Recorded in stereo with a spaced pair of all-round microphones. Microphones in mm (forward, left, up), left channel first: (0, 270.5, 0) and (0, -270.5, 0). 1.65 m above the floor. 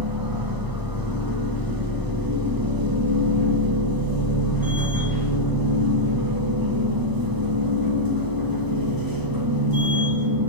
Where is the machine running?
40° right (ahead or behind), 1.5 m.